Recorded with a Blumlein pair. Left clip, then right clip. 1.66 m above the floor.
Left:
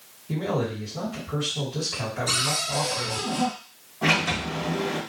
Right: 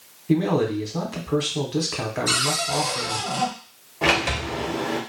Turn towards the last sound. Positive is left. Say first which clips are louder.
# right 2 dB
turn(degrees=-60)